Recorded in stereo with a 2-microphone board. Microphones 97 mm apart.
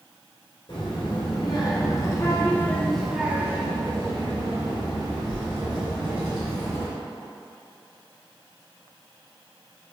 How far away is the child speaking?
About 1.7 m.